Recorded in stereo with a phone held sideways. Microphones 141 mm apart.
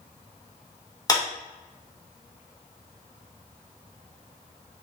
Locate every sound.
1.1 s a clap: 25° left (ahead or behind), 1.2 m